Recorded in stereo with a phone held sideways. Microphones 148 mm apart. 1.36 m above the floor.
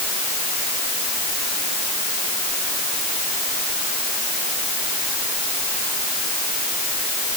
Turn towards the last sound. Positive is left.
No sound to turn to.